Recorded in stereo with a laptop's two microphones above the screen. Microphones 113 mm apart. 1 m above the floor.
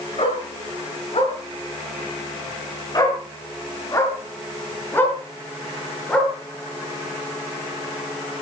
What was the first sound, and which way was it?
A dog barking, 60° left (ahead or behind).